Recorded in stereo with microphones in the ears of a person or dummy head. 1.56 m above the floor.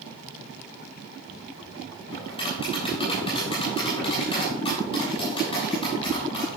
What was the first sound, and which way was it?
Tapping, 35° left (ahead or behind).